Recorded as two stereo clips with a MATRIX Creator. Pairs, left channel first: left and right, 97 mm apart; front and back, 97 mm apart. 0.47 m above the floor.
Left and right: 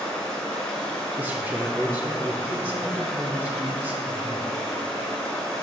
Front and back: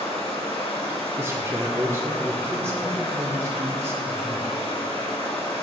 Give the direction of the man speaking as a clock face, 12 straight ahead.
5 o'clock.